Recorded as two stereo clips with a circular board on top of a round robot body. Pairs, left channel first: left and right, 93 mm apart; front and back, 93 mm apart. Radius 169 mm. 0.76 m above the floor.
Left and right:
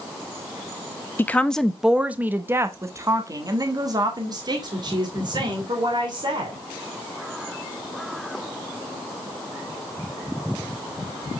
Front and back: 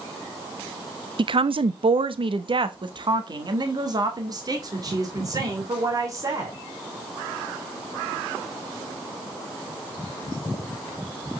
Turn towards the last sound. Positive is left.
turn(degrees=-125)